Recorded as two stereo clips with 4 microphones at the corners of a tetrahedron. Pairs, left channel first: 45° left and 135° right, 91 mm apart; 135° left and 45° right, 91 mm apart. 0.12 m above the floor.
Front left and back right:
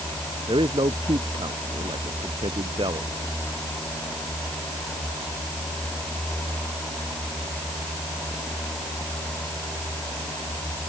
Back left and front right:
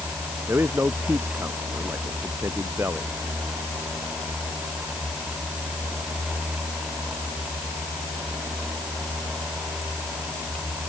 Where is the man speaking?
110° right.